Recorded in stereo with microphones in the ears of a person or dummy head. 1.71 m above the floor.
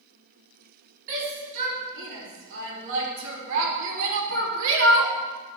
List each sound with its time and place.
1.1 s a shout: 70° right (ahead or behind), 4.5 m; by 5.1 s 80° right, 2.5 m